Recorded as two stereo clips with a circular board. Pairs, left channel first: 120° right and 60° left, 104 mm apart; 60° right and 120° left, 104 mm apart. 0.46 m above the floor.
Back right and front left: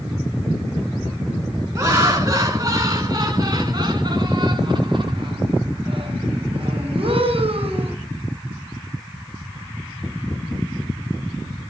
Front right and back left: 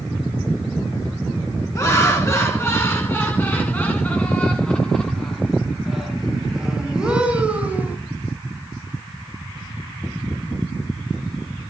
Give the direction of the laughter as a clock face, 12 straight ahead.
12 o'clock.